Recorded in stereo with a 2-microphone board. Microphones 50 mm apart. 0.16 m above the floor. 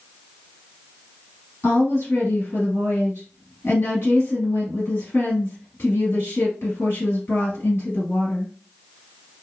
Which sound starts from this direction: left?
A woman speaking, at 1.6 s.